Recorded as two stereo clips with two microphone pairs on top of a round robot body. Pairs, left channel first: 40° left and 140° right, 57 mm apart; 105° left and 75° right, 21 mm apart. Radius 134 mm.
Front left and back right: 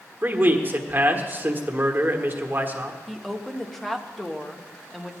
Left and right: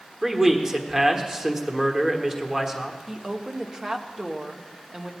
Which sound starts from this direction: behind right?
A man speaking, at 0.2 s.